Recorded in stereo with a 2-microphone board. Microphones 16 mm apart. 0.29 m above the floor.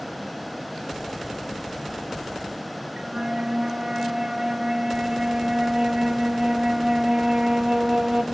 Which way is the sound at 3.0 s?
45° right (ahead or behind).